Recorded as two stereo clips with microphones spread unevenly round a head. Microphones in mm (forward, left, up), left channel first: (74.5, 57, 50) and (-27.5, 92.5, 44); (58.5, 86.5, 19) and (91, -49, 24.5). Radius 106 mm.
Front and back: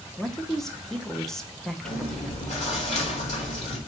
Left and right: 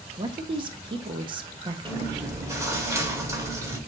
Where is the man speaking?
110° right, 0.6 m.